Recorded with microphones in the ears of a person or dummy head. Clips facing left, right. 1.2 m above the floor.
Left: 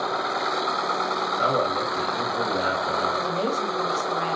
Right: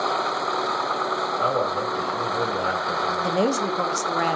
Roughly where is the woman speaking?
Right.